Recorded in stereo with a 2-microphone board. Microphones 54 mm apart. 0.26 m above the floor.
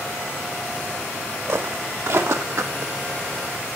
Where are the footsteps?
60° right (ahead or behind), 2.5 m; by 2.9 s 70° right (ahead or behind), 1.0 m.